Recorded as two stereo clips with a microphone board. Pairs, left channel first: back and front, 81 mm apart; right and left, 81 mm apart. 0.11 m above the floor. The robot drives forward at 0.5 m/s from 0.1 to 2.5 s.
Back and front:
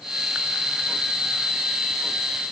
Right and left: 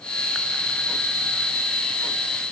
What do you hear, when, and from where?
Only background noise.